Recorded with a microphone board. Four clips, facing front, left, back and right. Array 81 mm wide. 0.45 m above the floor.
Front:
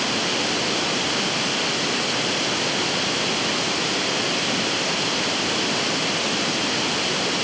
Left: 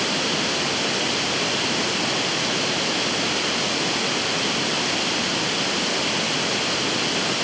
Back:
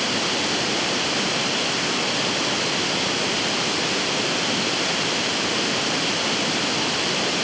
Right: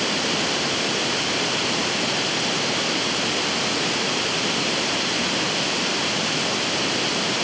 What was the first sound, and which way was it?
Only background noise.